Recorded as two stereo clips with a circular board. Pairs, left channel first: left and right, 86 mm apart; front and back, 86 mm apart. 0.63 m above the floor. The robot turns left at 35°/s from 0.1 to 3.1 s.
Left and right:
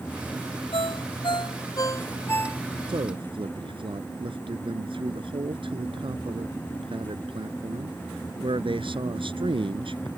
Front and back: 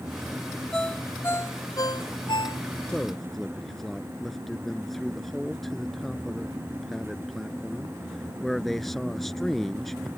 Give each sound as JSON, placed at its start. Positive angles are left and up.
{"t": 0.7, "sound": "a ringtone", "azimuth_deg": 80}
{"t": 2.9, "sound": "a man speaking", "azimuth_deg": -80}